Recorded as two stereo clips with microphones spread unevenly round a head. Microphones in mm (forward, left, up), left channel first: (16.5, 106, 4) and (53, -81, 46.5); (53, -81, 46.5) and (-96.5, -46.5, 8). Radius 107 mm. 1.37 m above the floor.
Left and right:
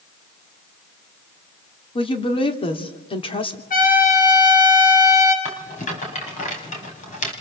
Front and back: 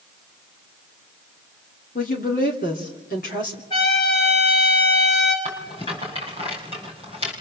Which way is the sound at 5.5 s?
50° left.